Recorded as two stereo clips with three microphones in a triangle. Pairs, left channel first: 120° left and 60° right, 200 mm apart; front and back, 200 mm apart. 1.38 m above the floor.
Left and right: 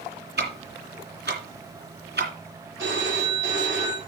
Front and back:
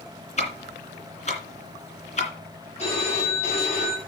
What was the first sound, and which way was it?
Ticking, 50° right.